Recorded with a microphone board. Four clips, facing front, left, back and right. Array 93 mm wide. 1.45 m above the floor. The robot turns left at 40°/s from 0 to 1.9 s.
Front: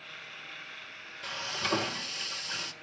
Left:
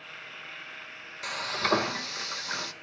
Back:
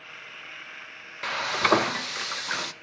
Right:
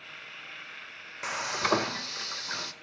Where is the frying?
155° right, 0.7 m; by 2.7 s straight behind, 0.7 m.